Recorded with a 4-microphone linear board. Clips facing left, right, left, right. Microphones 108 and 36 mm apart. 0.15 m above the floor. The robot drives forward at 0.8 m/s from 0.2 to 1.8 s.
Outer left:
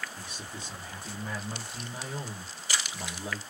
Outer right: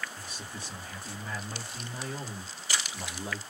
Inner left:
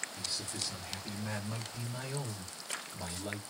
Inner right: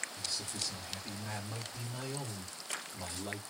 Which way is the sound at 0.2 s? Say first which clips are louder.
Even, inner left 1 dB; 20° left (ahead or behind).